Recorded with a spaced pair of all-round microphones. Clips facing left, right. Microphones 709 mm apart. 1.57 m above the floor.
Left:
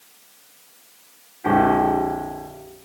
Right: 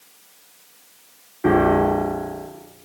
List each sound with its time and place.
1.4 s a piano: 75° right (ahead or behind), 5 m